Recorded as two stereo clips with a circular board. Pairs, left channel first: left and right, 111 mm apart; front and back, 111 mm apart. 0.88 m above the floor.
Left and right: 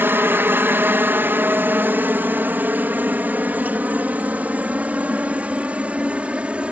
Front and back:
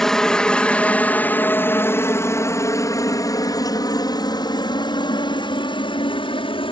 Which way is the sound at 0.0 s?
75° right.